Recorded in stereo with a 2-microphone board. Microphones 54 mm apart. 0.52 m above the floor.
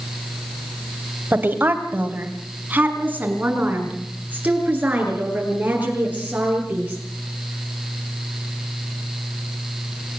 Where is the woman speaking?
35° right (ahead or behind), 2.5 m; by 7.0 s 25° right (ahead or behind), 10.5 m.